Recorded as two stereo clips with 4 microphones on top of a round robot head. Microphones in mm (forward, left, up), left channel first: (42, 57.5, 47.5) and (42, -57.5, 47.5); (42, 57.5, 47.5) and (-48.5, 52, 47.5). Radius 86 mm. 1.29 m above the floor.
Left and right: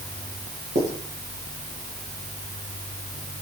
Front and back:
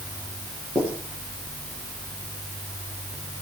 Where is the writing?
115° right, 6.5 m.